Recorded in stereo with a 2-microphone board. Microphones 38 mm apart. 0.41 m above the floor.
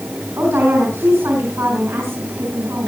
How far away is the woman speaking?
About 5.5 m.